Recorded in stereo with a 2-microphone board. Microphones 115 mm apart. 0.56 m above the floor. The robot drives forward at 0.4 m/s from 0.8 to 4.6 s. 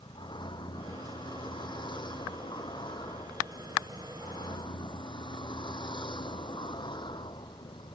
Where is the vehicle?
45° left (ahead or behind).